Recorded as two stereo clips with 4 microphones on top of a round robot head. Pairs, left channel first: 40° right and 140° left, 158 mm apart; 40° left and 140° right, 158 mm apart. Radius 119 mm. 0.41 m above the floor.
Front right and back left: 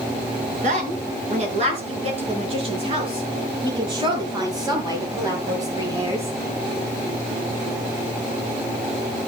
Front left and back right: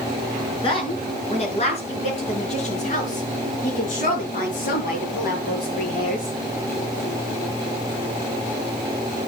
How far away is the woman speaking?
About 5.5 m.